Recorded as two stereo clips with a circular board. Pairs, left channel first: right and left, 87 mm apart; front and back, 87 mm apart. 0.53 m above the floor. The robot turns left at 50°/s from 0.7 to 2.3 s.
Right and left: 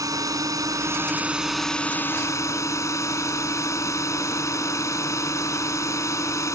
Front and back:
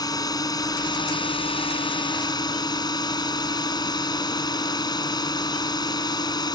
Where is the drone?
45° left; by 6.6 s 35° right.